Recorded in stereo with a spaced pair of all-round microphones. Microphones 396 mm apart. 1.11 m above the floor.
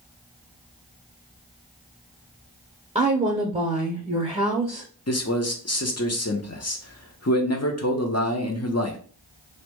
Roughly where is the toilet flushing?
No toilet flushing in this recording.